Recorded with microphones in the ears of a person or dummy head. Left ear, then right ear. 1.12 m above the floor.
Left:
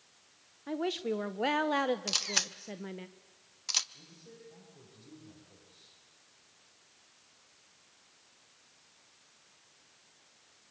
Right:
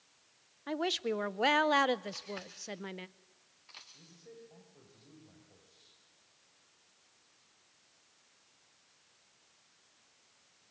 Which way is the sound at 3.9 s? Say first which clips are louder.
Left 1 dB; 65° right (ahead or behind).